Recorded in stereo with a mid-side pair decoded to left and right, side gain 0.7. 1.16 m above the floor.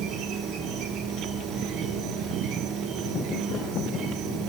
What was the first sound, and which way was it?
An insect, 50° right.